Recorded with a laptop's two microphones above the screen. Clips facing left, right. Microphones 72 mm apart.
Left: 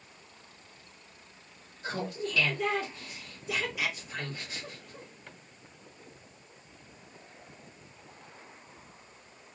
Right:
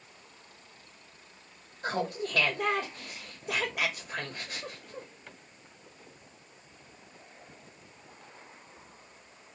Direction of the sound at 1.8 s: 55° right (ahead or behind).